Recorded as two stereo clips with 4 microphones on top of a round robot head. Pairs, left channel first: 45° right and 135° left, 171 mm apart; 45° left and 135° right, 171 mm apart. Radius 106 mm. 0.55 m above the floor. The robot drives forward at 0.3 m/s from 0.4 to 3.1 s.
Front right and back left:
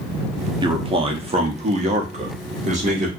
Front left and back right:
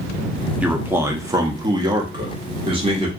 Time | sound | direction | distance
0.6 | a man speaking | 150° left | 0.7 m